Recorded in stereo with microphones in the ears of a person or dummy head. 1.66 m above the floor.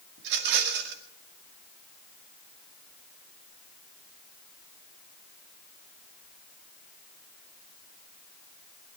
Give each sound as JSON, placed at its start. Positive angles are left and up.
{"t": 0.2, "sound": "a rattle", "side_deg": -65, "distance_m": 2.0}